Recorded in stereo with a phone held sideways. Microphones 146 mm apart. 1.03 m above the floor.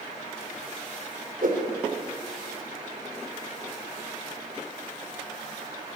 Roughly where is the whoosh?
Right.